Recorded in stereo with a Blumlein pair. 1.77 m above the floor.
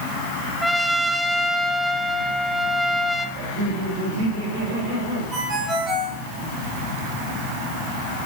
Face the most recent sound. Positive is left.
turn(degrees=-20)